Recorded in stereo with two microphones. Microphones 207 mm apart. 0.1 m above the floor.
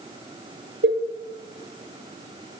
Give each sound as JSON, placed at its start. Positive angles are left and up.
{"t": 0.8, "sound": "a cowbell", "side_deg": -65, "distance_m": 1.3}